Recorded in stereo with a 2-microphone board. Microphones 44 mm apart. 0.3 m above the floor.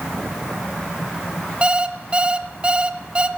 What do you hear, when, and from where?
1.6 s an alarm clock: 30° right (ahead or behind), 1.4 m